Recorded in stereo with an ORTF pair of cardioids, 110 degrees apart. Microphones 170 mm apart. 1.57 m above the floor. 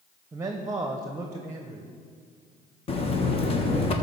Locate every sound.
0.3 s a man speaking: 20° right, 0.9 m
2.9 s a buzzer: 35° left, 1.2 m